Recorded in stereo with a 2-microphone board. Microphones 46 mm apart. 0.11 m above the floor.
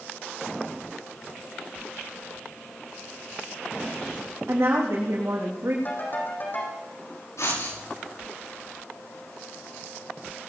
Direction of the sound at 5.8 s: 40° left (ahead or behind).